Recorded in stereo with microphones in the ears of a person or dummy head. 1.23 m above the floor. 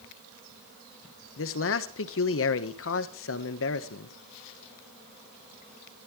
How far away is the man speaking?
About 1.3 m.